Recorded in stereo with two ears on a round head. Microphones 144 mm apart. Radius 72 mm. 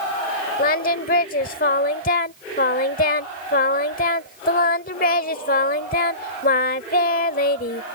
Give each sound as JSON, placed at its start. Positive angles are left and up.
{"t": 0.6, "sound": "singing", "side_deg": 55}